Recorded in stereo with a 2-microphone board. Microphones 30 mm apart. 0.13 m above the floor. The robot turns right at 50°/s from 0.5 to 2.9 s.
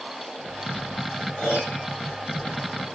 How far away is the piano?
About 5.5 m.